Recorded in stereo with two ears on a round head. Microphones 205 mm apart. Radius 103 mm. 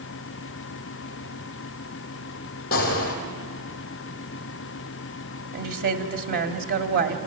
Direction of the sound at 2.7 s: 40° left (ahead or behind).